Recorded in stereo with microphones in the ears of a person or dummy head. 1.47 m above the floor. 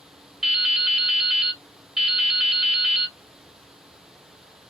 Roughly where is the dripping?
Centre.